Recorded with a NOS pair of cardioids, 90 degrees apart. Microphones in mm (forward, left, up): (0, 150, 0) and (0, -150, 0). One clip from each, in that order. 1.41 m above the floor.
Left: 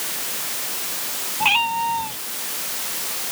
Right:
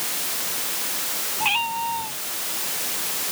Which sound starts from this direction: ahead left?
A cat meowing, at 1.4 s.